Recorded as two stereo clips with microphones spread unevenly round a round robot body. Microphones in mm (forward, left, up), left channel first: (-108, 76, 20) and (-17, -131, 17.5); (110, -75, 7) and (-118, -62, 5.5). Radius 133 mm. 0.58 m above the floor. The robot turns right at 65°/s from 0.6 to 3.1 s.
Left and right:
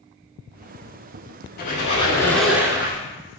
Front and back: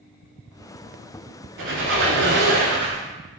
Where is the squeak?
145° left, 0.7 m; by 3.0 s 120° right, 0.7 m.